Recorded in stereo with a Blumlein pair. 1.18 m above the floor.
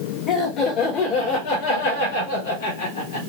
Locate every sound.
0.3 s laughter: 25° left, 1.8 m; by 3.2 s 65° left, 2.5 m